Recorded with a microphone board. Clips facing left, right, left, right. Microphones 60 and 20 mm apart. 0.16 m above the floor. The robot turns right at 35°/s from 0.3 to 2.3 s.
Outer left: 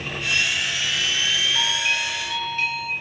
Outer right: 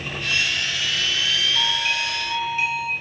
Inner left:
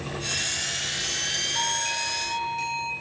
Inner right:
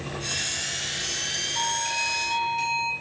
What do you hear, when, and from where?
1.6 s a doorbell: 10° left (ahead or behind), 3.5 m; by 2.9 s 10° right (ahead or behind), 3.5 m